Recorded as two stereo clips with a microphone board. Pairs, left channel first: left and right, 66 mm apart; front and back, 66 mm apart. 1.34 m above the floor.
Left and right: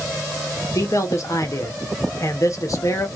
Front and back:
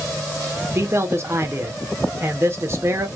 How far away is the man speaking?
About 0.7 m.